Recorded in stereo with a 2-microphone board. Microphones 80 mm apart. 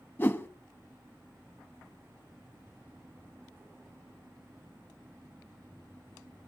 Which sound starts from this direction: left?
A whoosh, at 0.2 s.